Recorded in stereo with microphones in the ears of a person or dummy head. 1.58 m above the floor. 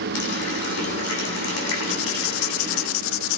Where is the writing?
80° left, 0.7 m.